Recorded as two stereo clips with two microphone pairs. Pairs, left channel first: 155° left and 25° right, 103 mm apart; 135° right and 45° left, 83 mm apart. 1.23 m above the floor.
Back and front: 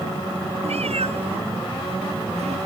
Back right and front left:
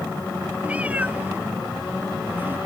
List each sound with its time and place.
0.6 s a cat meowing: 25° right; by 2.6 s 20° right